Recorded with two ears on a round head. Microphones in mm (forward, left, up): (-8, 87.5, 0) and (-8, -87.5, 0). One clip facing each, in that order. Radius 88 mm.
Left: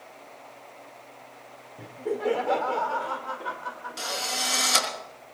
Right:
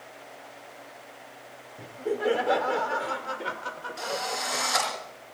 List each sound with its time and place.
1.8 s laughter: 5° left (ahead or behind), 1.6 m; by 5.0 s 55° right (ahead or behind), 2.5 m
4.0 s a drill: 40° left (ahead or behind), 4.5 m